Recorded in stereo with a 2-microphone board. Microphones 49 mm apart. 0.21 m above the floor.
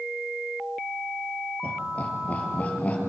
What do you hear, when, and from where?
1.6 s laughter: 30° left (ahead or behind), 5.5 m